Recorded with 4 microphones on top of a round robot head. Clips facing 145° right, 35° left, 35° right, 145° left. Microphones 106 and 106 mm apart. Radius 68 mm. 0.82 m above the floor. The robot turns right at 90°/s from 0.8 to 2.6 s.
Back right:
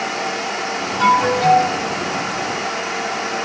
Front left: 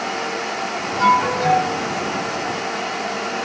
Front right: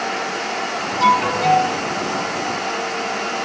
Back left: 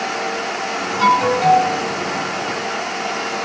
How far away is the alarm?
About 7 m.